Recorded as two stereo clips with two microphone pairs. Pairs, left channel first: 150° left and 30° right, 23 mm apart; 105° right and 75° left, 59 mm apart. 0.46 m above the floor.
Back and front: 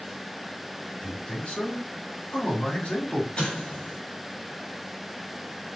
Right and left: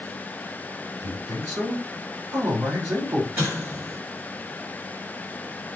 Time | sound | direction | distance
1.0 | a man speaking | 120° left | 4 m
3.4 | an explosion | 120° left | 3 m